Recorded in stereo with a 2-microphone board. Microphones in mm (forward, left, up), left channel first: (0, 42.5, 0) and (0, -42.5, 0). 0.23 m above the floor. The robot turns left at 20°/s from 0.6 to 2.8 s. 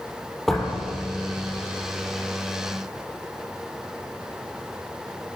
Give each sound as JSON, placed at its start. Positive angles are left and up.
{"t": 0.5, "sound": "a door slam", "side_deg": 0, "distance_m": 4.0}